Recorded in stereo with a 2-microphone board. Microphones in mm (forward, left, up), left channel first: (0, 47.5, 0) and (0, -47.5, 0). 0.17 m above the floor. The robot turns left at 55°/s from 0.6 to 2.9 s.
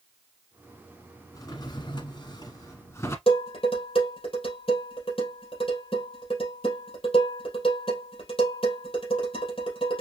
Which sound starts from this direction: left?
Dishes clattering, at 3.3 s.